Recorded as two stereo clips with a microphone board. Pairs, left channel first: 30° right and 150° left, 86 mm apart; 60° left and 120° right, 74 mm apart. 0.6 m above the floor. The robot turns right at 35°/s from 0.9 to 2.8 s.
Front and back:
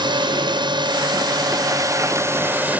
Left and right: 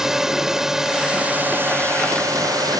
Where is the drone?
155° left; by 2.8 s 135° right.